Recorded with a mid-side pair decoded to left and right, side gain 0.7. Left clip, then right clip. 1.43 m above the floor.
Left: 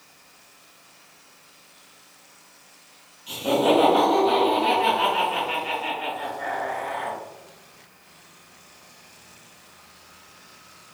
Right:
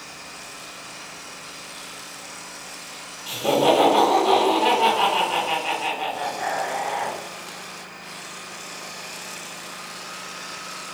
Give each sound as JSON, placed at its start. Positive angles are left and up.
{"t": 3.3, "sound": "laughter", "azimuth_deg": -60, "distance_m": 1.7}